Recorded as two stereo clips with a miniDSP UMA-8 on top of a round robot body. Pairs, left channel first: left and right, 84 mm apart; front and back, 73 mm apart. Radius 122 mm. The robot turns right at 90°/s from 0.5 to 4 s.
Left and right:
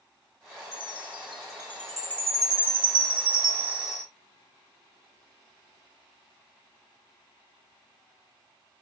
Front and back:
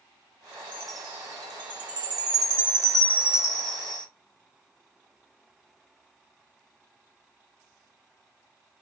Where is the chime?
70° left, 2.5 m; by 4.0 s 5° left, 2.5 m.